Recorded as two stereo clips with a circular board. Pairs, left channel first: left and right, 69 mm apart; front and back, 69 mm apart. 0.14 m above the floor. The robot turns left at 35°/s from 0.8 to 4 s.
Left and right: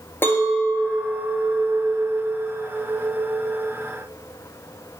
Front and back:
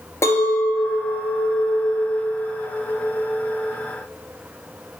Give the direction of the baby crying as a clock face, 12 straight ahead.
I don't hear a baby crying.